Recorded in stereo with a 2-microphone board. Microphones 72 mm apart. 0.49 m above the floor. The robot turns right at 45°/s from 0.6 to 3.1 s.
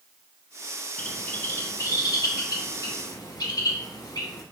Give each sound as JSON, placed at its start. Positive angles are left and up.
{"t": 1.0, "sound": "a bird", "side_deg": 10, "distance_m": 0.9}